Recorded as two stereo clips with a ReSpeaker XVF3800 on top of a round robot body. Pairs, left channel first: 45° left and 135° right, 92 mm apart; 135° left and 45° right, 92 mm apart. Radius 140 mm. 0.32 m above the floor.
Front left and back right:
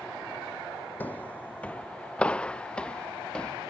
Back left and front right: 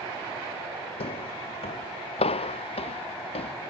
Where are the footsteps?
120° left; by 3.5 s 125° left.